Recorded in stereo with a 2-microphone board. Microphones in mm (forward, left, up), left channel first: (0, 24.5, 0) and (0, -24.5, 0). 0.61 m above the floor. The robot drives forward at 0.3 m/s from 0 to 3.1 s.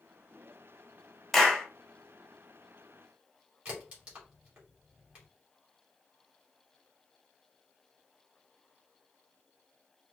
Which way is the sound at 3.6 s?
25° right (ahead or behind).